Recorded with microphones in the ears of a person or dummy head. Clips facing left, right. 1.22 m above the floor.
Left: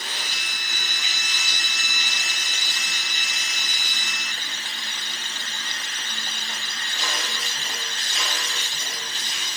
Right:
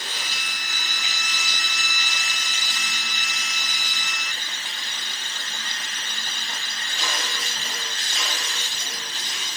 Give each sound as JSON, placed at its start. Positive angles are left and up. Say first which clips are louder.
{"t": 0.1, "sound": "a violin", "louder": "even", "side_deg": 50}